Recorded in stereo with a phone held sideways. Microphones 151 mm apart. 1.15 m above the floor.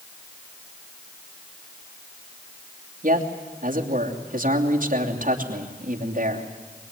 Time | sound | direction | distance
3.0 | a man speaking | 60° right (ahead or behind) | 3 m